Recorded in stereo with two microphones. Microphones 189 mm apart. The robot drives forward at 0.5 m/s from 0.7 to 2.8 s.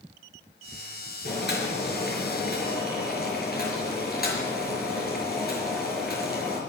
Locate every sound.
1.2 s boiling: 60° left (ahead or behind), 4.5 m; by 6.6 s 50° left (ahead or behind), 5 m